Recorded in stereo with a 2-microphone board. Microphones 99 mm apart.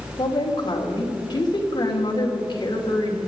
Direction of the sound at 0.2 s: 45° left (ahead or behind).